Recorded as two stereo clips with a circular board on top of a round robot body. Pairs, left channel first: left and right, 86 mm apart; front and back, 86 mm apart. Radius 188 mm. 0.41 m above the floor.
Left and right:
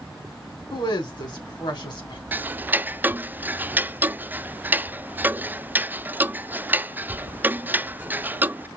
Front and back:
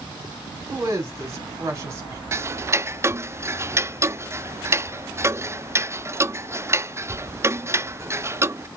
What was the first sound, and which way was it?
A woman speaking, 125° left.